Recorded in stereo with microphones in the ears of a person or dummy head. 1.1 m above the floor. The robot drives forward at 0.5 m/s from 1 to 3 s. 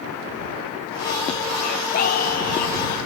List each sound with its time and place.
1.6 s singing: 45° left (ahead or behind)